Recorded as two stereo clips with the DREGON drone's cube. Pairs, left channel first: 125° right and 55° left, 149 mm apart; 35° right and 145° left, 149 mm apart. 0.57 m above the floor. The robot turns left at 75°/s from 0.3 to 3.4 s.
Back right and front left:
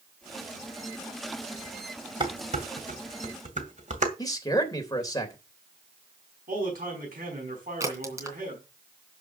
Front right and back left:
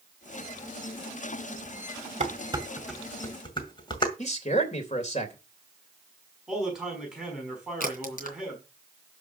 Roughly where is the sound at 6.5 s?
Ahead left.